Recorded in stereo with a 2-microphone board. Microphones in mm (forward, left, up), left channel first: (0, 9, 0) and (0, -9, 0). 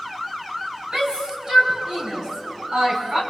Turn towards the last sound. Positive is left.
turn(degrees=-55)  # may be behind; listen again after turning